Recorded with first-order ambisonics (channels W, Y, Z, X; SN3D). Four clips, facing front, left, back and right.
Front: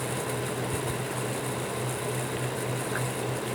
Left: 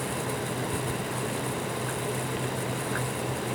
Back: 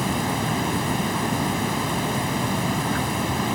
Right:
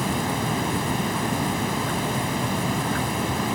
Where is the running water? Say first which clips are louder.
Right 6 dB, back 7 dB; 145° right.